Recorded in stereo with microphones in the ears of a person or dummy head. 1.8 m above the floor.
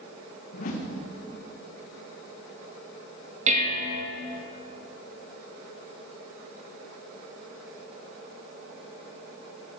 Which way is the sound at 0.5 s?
50° left (ahead or behind).